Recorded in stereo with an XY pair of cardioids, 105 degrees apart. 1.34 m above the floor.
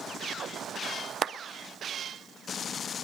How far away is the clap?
About 0.5 m.